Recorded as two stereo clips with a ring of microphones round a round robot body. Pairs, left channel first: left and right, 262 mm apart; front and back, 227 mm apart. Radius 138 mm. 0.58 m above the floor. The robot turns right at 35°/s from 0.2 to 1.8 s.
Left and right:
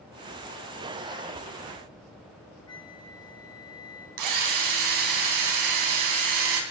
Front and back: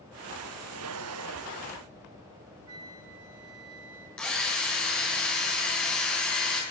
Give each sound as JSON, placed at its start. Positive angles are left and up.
{"t": 2.7, "sound": "a flute", "azimuth_deg": 165, "distance_m": 3.5}
{"t": 4.2, "sound": "a drill", "azimuth_deg": -85, "distance_m": 4.0}